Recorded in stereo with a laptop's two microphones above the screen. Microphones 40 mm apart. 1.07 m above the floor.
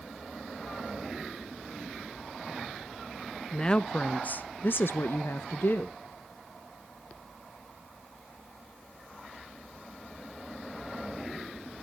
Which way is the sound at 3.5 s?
20° left (ahead or behind).